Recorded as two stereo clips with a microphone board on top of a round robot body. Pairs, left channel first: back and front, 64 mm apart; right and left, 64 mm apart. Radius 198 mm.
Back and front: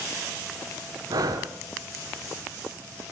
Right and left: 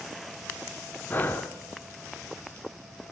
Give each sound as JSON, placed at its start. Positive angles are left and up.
{"t": 1.1, "sound": "breathing", "azimuth_deg": -25, "distance_m": 0.9}